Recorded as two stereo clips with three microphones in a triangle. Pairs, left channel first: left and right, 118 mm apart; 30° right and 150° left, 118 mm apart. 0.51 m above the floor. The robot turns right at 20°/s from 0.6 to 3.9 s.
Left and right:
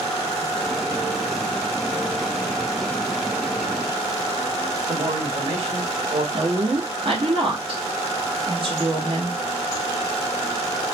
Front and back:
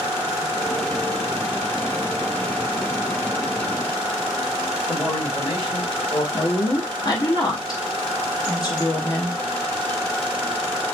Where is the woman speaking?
75° right, 1.2 m.